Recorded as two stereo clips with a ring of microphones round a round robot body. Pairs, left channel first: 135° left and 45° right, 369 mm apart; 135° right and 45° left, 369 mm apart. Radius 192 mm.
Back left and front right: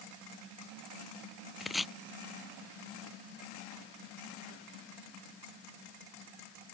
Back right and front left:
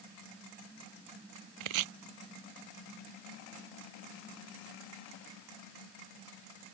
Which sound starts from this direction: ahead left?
Chopping, at 1.6 s.